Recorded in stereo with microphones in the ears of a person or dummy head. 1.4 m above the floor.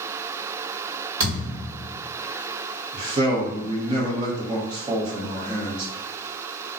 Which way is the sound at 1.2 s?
25° right (ahead or behind).